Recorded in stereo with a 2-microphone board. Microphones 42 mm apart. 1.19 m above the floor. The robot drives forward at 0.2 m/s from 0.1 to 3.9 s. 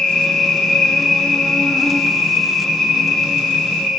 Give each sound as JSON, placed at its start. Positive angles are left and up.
{"t": 0.0, "sound": "an insect", "side_deg": 15, "distance_m": 0.7}